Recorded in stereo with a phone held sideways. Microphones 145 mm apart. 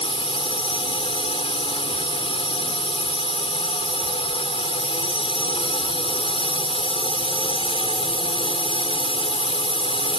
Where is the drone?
40° left (ahead or behind).